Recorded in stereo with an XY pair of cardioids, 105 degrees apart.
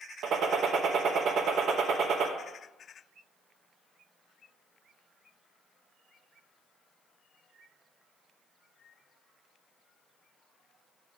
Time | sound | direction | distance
0.2 | a gunshot | 70° right | 0.9 m